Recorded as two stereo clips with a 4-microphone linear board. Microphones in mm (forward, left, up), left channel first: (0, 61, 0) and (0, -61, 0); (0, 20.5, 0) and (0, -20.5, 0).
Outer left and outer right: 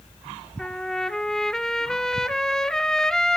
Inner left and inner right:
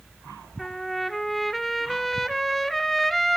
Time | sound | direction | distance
0.6 | a trumpet | 5° left (ahead or behind) | 0.7 m